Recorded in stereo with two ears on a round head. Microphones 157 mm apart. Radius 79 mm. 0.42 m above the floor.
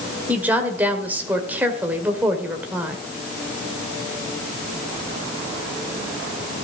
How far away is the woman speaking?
About 1.8 m.